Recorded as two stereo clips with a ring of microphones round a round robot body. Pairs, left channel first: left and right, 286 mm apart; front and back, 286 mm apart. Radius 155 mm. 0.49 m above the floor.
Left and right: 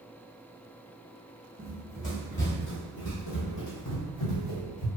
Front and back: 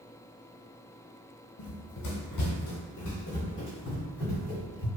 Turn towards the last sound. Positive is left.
turn(degrees=85)